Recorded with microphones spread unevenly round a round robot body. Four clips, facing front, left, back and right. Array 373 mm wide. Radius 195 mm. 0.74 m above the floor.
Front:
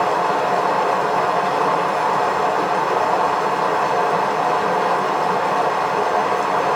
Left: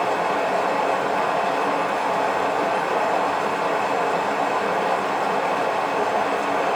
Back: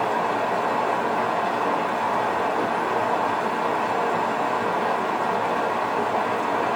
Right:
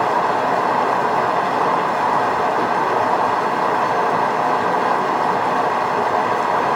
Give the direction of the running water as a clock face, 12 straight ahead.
2 o'clock.